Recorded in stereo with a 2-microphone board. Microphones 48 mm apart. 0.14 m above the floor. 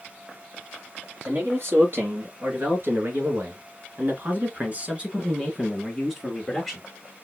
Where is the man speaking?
50° right (ahead or behind), 3 m; by 6.8 s centre (ahead or behind), 2.5 m.